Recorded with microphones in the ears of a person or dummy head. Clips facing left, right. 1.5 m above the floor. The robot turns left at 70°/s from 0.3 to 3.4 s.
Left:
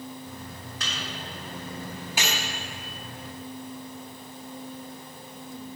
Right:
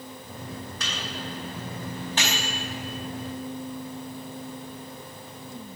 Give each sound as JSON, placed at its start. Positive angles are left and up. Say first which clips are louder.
{"t": 0.8, "sound": "a microwave", "louder": "even", "side_deg": -75, "distance_m": 2.5}